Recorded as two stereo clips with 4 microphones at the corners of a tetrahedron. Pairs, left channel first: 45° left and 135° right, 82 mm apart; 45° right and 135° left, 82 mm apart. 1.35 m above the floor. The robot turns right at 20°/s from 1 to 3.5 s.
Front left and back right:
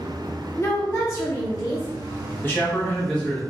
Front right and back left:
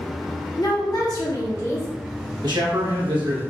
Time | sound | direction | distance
0.6 | a woman speaking | 10° right | 0.9 m
2.4 | a man speaking | 110° left | 1.2 m